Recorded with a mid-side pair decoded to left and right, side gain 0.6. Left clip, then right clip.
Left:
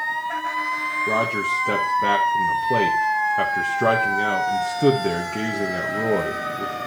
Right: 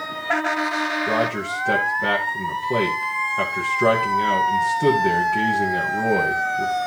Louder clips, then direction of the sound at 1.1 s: Left 1 dB; 10° left.